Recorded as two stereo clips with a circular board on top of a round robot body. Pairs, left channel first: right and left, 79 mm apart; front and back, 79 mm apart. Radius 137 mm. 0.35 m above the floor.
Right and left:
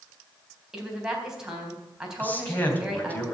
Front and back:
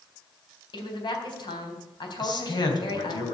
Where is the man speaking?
20° right, 3.5 m.